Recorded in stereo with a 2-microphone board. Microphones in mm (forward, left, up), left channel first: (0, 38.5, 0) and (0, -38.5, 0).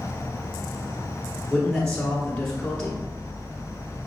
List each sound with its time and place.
0.0 s an insect: 20° right (ahead or behind), 1.0 m
1.5 s a man speaking: 5° left (ahead or behind), 1.5 m